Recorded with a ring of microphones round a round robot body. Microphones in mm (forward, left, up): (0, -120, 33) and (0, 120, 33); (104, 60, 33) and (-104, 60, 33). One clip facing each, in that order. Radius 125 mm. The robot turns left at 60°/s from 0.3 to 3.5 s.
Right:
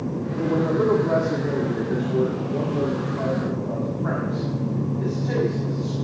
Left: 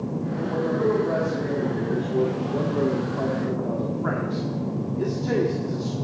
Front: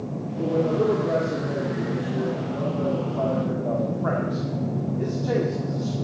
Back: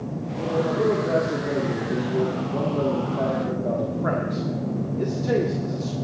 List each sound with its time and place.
0.4 s a man speaking: 60° right, 2 m; by 6.0 s 115° left, 2 m